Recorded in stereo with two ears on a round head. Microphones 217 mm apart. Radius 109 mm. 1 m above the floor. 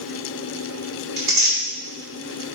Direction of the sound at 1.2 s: 60° right (ahead or behind).